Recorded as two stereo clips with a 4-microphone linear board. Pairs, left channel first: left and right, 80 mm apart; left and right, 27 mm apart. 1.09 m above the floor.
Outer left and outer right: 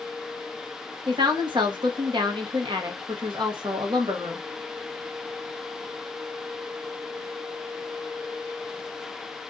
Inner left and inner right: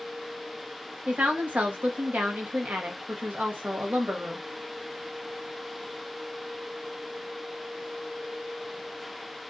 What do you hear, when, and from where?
1.1 s a woman speaking: 75° right (ahead or behind), 0.9 m